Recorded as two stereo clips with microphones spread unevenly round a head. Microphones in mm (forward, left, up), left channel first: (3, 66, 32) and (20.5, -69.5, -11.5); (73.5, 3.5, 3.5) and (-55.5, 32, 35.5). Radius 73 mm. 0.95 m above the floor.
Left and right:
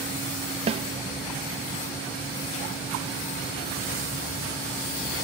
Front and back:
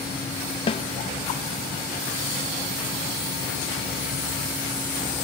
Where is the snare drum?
50° right, 1.0 m.